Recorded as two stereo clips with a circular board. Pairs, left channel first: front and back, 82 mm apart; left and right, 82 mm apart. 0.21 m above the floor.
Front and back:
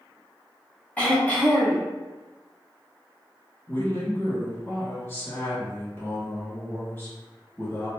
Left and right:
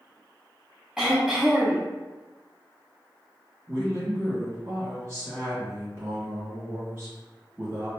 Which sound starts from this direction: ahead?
Throat clearing, at 1.0 s.